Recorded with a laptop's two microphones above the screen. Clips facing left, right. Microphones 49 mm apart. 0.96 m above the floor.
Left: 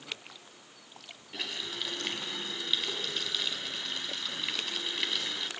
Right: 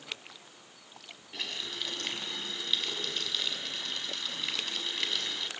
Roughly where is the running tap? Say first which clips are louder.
Left 1 dB; centre.